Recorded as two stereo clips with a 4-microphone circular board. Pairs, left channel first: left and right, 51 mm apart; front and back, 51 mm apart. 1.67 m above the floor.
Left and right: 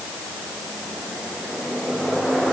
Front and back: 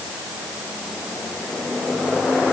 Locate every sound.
Only background noise.